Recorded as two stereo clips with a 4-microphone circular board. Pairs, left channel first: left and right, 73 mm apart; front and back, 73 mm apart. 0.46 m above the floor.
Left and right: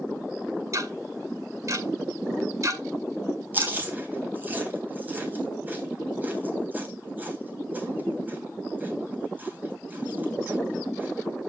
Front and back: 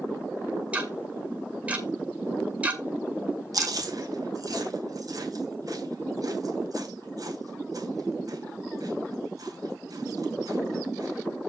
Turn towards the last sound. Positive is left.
turn(degrees=-150)